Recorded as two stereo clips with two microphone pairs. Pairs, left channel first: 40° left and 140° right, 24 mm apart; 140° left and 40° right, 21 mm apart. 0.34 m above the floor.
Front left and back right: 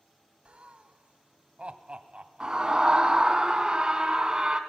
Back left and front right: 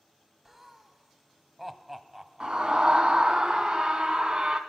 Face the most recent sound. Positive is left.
turn(degrees=-85)